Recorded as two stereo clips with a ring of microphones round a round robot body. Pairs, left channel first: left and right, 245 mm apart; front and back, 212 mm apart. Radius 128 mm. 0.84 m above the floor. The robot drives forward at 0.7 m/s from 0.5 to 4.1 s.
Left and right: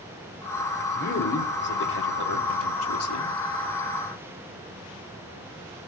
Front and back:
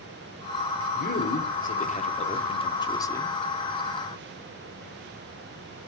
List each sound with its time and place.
0.9 s a man speaking: 40° left, 2.5 m; by 3.4 s 80° left, 1.8 m